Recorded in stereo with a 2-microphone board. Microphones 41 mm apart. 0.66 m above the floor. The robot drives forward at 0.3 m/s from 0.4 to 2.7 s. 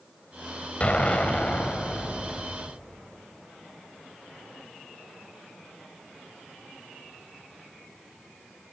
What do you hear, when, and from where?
0.8 s an explosion: 35° left (ahead or behind), 1.9 m; by 2.4 s 25° left (ahead or behind), 2.5 m